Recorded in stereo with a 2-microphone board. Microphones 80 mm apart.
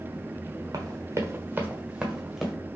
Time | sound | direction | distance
0.7 | running footsteps | 50° right (ahead or behind) | 1.2 m